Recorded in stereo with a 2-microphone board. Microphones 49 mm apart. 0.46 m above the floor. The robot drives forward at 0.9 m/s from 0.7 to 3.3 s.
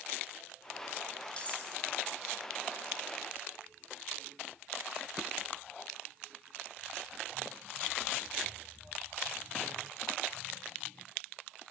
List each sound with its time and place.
1.4 s cutlery clinking: 25° left (ahead or behind), 1.2 m; by 1.6 s 30° left (ahead or behind), 1.0 m